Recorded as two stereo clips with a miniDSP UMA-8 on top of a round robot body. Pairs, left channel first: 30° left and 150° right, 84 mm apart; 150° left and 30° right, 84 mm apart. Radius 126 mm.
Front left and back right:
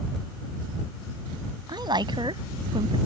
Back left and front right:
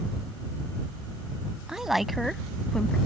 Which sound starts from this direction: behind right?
A woman speaking, at 1.7 s.